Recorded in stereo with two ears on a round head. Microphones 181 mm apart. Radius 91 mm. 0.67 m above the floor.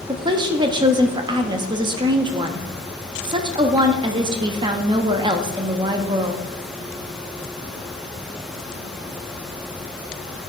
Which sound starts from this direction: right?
A woman speaking, at 0.1 s.